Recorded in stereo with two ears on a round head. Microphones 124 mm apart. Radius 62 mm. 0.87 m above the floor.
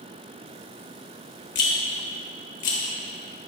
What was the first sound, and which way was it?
A rattle, 60° left (ahead or behind).